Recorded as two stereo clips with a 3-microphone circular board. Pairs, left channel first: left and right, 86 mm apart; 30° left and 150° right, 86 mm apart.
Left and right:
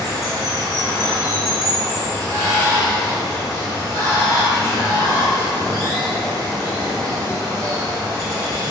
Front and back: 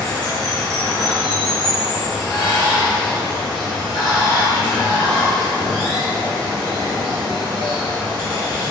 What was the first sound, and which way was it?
Running water, 45° left.